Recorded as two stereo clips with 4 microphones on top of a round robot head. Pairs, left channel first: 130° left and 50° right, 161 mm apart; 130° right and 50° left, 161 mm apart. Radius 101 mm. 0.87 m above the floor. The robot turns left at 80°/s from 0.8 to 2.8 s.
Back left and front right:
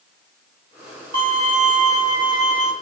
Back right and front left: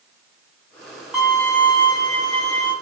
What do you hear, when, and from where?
1.1 s a violin: 35° right, 2 m; by 2.7 s 160° right, 2 m